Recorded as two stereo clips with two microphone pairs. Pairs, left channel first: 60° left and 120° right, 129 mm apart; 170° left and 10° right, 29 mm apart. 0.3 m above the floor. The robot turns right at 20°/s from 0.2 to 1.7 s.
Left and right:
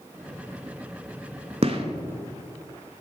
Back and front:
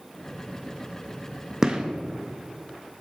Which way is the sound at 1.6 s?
80° right.